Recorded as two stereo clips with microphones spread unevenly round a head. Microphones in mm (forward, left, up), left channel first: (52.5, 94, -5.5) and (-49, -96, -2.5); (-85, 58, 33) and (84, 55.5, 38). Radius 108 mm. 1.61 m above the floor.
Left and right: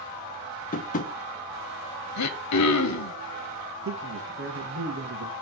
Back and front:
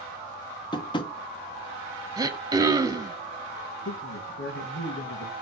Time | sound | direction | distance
0.7 | tapping | 115° left | 1.1 m
2.2 | throat clearing | 70° left | 1.1 m
3.9 | a man speaking | 155° right | 2.0 m